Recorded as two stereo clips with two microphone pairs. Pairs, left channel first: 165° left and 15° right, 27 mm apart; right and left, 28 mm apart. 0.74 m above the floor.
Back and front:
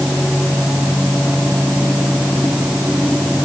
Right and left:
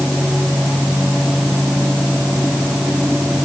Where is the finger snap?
No finger snap in this recording.